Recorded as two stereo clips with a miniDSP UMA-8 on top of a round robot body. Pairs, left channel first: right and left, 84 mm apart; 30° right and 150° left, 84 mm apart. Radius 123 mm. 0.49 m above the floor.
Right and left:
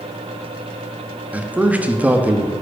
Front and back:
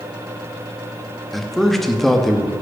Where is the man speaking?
55° left, 0.7 m.